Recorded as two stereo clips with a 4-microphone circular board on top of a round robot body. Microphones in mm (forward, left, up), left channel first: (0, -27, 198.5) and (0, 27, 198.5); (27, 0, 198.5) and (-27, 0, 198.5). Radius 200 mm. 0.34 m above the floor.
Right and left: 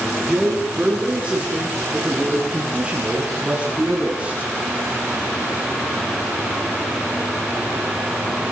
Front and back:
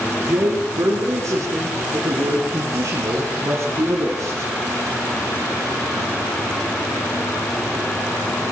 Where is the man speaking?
165° left, 9 m; by 4.5 s 150° left, 7 m.